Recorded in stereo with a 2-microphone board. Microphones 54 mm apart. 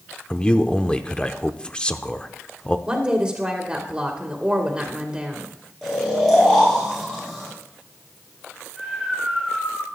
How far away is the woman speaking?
About 2.0 m.